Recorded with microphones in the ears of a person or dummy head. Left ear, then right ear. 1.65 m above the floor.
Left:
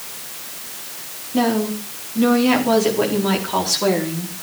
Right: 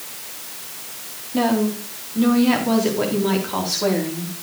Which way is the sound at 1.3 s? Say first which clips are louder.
Left 1 dB; 5° right (ahead or behind).